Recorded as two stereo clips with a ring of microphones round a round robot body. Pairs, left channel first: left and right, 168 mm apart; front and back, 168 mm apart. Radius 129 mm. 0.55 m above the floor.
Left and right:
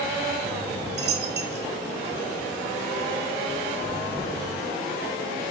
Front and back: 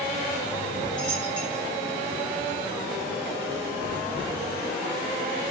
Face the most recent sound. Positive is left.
turn(degrees=-70)